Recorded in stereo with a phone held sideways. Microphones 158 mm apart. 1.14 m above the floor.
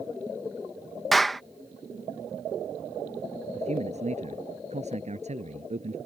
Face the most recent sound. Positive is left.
turn(degrees=-45)  # may be behind; listen again after turning